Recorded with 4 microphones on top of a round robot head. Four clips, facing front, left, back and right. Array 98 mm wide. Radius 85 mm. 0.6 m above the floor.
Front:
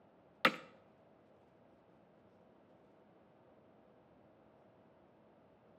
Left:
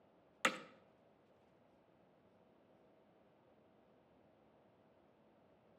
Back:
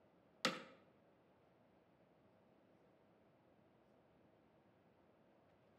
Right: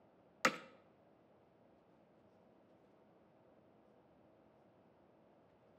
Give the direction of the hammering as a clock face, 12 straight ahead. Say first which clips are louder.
Right 2 dB, front 10 dB; 1 o'clock.